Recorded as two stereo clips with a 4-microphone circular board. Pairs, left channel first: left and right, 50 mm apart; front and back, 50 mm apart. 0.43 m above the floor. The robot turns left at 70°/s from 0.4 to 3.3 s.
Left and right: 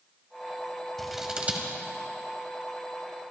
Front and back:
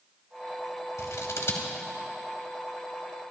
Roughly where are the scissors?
Ahead.